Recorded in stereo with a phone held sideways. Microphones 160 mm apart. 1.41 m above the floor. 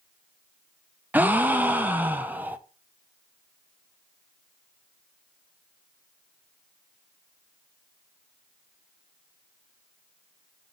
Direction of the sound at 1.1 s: 10° right (ahead or behind).